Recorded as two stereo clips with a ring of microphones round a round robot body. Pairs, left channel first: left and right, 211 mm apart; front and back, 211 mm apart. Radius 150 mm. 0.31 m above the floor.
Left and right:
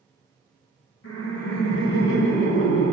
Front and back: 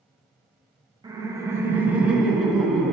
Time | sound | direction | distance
1.0 | laughter | 115° left | 1.7 m